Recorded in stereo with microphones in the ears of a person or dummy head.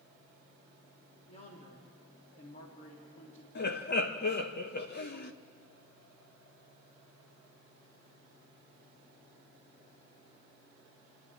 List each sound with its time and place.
1.3 s a man speaking: 30° left (ahead or behind), 2.5 m
3.5 s laughter: 45° left (ahead or behind), 1.1 m